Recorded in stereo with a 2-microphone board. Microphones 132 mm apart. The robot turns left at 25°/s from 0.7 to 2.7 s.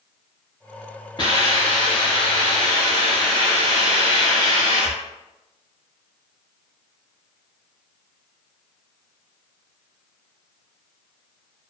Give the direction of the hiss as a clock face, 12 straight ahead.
8 o'clock.